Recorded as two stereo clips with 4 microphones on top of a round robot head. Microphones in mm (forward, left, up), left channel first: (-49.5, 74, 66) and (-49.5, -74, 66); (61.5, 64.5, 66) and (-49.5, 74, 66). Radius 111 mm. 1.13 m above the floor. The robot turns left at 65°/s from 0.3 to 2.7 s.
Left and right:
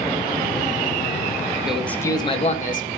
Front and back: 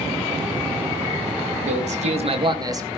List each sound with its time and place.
1.6 s a man speaking: 175° right, 2.5 m; by 2.9 s 120° left, 2.5 m